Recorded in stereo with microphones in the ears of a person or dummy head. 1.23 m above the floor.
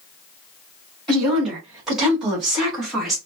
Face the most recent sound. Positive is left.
turn(degrees=0)  # may be behind; listen again after turning